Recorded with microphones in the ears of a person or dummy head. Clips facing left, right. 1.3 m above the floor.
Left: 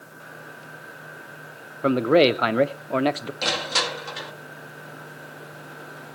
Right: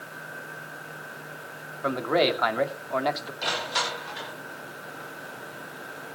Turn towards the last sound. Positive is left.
turn(degrees=65)  # may be behind; listen again after turning